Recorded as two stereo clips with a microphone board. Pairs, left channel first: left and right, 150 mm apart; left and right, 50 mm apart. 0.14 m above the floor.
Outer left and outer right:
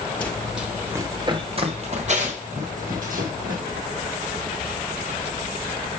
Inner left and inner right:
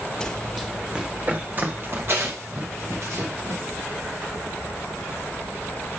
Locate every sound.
0.2 s running footsteps: 10° left (ahead or behind), 1.9 m; by 3.6 s 65° right (ahead or behind), 4 m